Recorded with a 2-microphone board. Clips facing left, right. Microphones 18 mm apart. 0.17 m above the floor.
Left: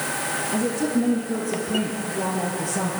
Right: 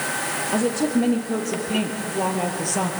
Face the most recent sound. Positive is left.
turn(degrees=-55)  # may be behind; listen again after turning